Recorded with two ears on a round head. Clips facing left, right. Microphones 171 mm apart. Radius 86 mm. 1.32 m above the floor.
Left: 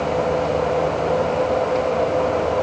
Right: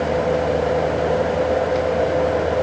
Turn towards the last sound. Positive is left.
No sound to turn to.